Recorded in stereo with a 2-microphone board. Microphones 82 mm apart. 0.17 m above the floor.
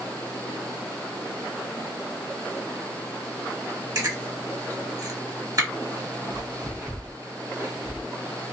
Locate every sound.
4.0 s chewing: 45° right (ahead or behind), 1.5 m